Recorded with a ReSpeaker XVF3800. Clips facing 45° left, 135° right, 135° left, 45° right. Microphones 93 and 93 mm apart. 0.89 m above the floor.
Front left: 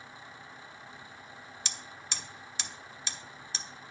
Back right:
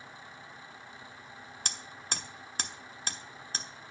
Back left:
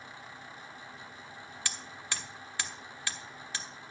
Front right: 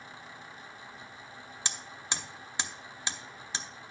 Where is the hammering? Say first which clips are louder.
Back right 4 dB, front right 2 dB; 110° right, 0.6 m.